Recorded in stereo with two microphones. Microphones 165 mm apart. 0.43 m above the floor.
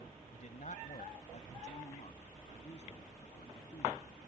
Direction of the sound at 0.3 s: 55° left (ahead or behind).